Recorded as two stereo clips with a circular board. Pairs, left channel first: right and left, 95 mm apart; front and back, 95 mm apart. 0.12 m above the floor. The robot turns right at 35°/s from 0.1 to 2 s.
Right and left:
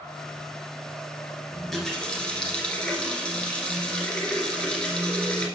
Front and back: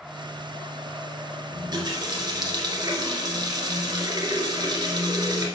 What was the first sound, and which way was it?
A running tap, straight behind.